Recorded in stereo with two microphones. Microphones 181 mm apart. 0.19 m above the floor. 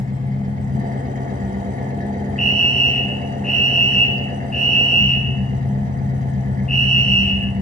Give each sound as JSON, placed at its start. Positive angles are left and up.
{"t": 0.0, "sound": "an engine running", "side_deg": -45, "distance_m": 2.5}
{"t": 2.4, "sound": "a fire alarm", "side_deg": 45, "distance_m": 3.5}